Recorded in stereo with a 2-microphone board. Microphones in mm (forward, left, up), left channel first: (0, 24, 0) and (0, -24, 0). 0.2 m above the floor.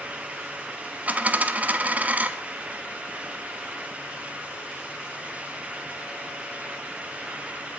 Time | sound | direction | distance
1.1 | a dropped coin | 35° right (ahead or behind) | 0.8 m